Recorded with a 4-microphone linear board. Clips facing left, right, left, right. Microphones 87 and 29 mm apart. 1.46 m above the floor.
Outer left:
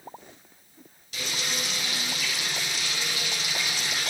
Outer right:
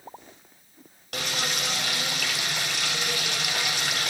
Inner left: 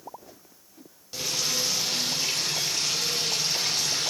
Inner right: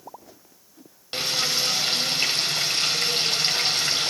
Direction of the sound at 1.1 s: 65° right (ahead or behind).